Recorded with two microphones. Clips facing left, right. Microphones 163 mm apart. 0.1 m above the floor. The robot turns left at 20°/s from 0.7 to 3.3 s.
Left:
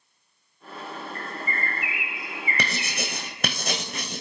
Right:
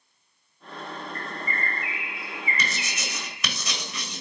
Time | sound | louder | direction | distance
1.1 | a bird | even | 120° right | 1.4 m
2.6 | writing | left 3 dB | 65° left (ahead or behind) | 1.1 m